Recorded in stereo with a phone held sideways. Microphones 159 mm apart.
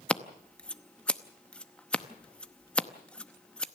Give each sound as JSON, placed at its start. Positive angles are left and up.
{"t": 0.1, "sound": "scissors", "side_deg": 5, "distance_m": 0.8}